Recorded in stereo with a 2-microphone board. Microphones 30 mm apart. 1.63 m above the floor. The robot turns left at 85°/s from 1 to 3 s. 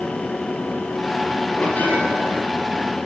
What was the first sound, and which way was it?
A bell, 135° left.